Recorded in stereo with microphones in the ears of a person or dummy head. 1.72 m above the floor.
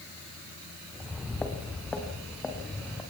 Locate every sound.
0.9 s footsteps: 5° left (ahead or behind), 3 m